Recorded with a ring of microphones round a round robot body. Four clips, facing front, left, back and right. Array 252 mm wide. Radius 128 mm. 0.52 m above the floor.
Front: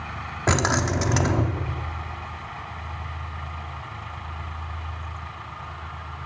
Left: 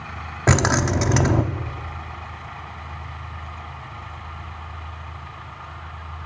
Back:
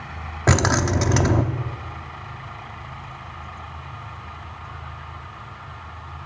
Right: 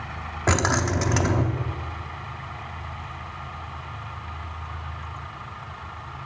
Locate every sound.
0.5 s keys jangling: 130° left, 0.5 m